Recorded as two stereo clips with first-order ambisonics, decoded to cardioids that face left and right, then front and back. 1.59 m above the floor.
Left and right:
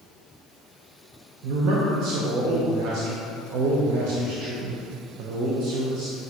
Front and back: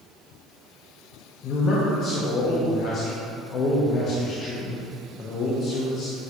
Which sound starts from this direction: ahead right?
A man speaking, at 1.4 s.